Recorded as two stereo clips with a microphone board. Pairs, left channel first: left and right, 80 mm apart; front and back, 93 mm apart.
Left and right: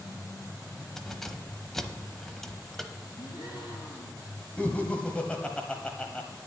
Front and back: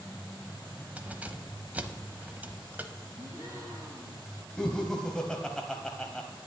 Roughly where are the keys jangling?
Behind.